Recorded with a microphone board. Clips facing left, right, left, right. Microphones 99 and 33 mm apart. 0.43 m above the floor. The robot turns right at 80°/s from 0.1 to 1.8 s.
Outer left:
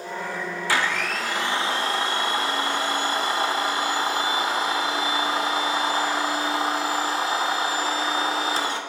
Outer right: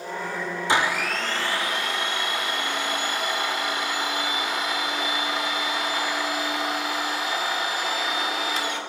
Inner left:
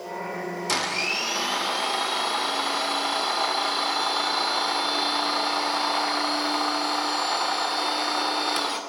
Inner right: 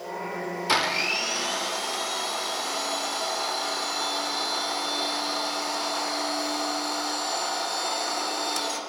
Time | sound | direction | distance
0.7 | a blender | 35° right | 0.6 m